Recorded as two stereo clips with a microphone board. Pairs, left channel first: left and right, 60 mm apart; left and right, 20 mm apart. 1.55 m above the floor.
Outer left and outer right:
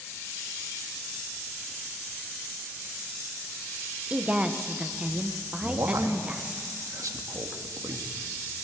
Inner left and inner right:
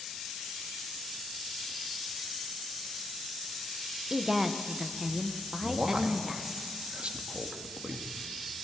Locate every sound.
4.1 s a woman speaking: 20° right (ahead or behind), 1.2 m
5.6 s a man speaking: 65° right (ahead or behind), 2.0 m